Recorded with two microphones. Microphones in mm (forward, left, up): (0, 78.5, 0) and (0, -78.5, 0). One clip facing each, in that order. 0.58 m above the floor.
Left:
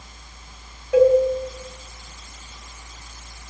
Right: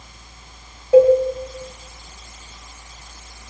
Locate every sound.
0.9 s a cowbell: 30° right (ahead or behind), 4 m